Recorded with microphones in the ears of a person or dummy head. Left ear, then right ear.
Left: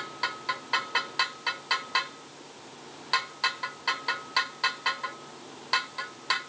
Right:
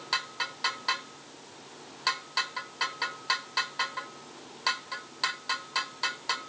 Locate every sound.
Only background noise.